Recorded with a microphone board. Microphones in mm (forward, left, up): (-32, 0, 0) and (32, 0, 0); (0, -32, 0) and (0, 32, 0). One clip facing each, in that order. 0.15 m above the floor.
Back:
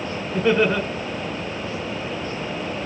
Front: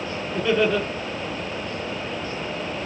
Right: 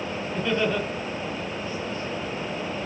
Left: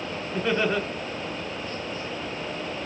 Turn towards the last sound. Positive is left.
turn(degrees=135)